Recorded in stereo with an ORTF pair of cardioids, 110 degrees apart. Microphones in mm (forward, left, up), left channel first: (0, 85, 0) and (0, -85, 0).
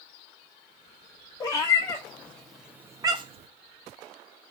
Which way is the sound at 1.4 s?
20° left.